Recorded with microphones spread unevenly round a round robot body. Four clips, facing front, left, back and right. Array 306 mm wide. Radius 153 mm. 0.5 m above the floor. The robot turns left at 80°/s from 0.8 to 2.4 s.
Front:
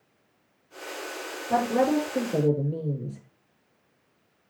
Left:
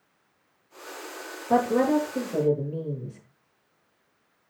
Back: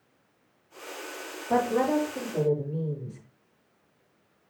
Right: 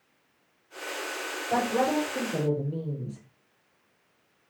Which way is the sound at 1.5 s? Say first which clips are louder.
Left 4 dB, front 1 dB; 65° left.